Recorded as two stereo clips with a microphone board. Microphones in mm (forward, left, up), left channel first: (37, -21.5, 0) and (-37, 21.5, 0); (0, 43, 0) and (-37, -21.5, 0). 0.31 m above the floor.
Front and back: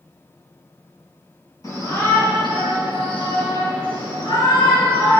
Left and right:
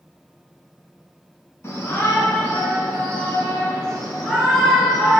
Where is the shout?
10° left, 3 m; by 5.2 s 30° right, 4.5 m.